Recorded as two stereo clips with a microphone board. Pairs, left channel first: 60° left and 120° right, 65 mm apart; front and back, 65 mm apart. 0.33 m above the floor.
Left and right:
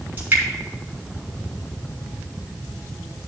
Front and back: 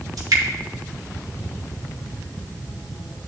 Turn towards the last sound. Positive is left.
turn(degrees=180)